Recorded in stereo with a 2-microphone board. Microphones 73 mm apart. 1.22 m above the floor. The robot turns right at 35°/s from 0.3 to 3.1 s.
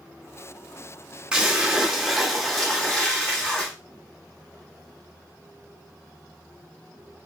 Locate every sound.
1.3 s a splash: 15° right (ahead or behind), 1.0 m; by 3.7 s 10° left (ahead or behind), 1.0 m